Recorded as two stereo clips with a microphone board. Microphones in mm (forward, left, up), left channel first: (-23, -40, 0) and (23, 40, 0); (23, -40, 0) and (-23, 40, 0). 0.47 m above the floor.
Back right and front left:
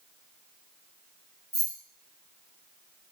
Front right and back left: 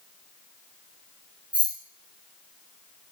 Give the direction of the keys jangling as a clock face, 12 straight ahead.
5 o'clock.